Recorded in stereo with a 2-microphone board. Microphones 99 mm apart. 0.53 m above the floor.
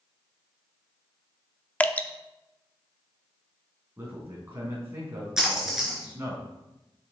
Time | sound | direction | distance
1.8 | dripping | 15° left (ahead or behind) | 0.7 m
4.0 | a man speaking | 25° right (ahead or behind) | 4.5 m
5.4 | a splash | 5° right (ahead or behind) | 3.5 m